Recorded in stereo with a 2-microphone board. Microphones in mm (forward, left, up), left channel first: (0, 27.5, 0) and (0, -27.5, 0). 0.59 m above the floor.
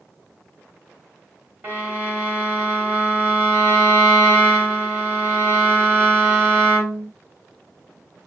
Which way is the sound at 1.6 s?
35° right (ahead or behind).